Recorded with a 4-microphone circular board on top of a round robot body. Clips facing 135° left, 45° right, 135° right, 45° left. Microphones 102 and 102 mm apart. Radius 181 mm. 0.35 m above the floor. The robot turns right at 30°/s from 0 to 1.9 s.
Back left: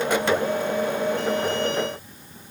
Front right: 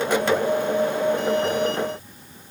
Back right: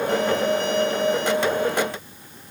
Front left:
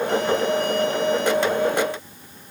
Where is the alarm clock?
No alarm clock in this recording.